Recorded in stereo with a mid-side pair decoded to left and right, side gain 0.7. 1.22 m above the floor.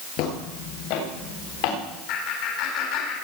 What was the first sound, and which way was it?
Footsteps, 65° left.